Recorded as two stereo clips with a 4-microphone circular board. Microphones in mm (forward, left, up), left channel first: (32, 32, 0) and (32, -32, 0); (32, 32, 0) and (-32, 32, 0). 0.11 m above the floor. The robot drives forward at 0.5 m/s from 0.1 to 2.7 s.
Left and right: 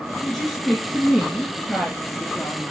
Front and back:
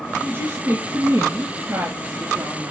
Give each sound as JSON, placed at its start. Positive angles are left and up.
{"t": 0.2, "sound": "a woman speaking", "azimuth_deg": 180, "distance_m": 1.5}